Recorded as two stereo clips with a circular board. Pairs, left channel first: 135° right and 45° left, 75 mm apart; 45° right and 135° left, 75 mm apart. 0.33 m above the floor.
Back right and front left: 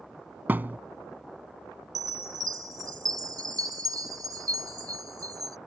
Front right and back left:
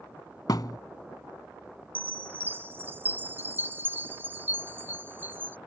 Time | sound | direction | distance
0.5 | a thud | 20° right | ?
1.9 | a chime | 75° left | ?